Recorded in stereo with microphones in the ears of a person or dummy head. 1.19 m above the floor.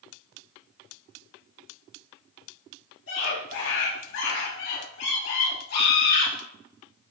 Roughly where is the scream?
Left.